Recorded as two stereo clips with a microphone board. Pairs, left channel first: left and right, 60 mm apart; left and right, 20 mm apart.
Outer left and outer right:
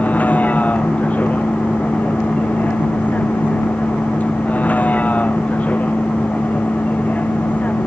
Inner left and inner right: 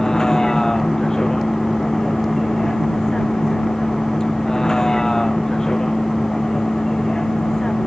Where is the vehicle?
30° left (ahead or behind).